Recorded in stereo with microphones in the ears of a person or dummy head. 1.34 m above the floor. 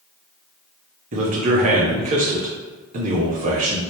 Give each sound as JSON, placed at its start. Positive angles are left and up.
{"t": 1.1, "sound": "a man speaking", "side_deg": -45, "distance_m": 0.8}